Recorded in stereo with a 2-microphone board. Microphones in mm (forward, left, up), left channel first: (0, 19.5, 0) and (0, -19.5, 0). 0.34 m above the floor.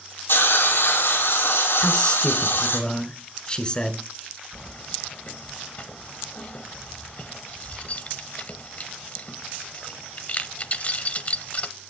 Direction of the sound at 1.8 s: 25° left (ahead or behind).